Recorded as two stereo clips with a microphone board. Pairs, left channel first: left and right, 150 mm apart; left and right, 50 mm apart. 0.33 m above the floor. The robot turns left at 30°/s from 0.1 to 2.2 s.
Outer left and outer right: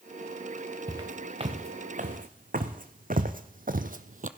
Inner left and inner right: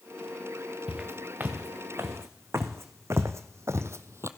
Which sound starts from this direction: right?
Footsteps, at 0.9 s.